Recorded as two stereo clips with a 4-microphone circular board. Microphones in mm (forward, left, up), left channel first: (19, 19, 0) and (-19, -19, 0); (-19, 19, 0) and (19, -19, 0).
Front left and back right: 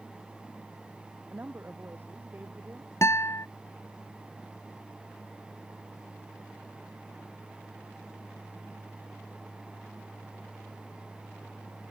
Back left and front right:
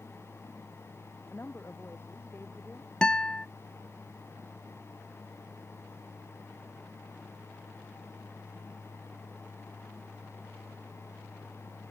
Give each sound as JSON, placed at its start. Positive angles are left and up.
{"t": 1.3, "sound": "a woman speaking", "azimuth_deg": 175}
{"t": 3.0, "sound": "a guitar", "azimuth_deg": 65}